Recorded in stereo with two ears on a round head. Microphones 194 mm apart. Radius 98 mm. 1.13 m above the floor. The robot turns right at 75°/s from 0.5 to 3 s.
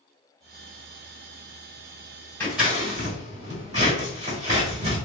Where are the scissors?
10° left (ahead or behind), 1.8 m; by 5.0 s 35° right (ahead or behind), 1.8 m.